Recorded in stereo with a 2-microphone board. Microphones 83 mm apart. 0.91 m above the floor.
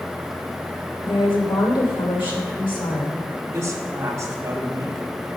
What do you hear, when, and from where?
1.0 s a woman speaking: 65° left (ahead or behind), 2.5 m
3.5 s a woman speaking: 35° right (ahead or behind), 1.8 m